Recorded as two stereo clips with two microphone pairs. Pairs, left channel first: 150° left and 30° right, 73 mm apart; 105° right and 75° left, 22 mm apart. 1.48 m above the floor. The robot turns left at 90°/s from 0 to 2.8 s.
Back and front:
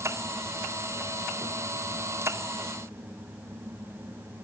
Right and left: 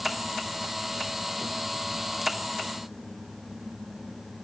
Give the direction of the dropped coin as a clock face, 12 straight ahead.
I don't hear a dropped coin.